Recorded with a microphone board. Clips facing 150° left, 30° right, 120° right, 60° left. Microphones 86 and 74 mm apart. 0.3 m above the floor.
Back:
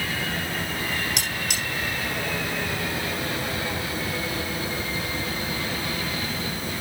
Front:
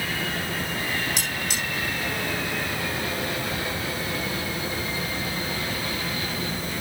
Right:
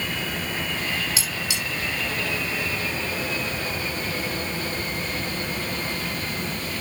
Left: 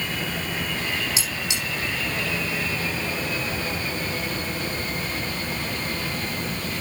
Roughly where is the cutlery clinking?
Behind left.